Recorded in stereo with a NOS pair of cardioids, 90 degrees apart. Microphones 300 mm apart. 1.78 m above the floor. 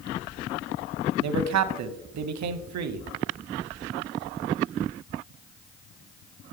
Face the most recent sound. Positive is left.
turn(degrees=-65)